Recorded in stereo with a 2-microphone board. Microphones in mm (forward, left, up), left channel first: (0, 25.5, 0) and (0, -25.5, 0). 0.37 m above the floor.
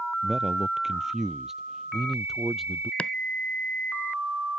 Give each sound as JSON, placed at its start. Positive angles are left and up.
{"t": 0.2, "sound": "a man speaking", "side_deg": -15}
{"t": 3.0, "sound": "chopping", "side_deg": 25}